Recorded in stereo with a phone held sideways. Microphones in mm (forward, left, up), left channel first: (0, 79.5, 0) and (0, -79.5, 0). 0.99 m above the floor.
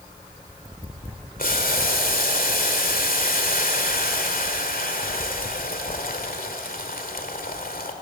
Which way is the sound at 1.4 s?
65° left (ahead or behind).